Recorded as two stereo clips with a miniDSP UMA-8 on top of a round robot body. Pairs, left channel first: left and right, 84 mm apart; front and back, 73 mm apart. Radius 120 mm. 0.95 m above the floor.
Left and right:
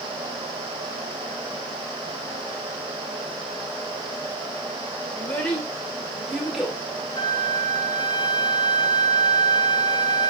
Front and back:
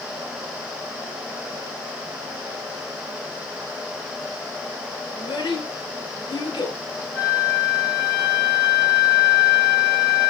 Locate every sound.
5.1 s a child speaking: 20° left, 3 m; by 6.8 s 5° right, 3.5 m
7.2 s a flute: 55° left, 3 m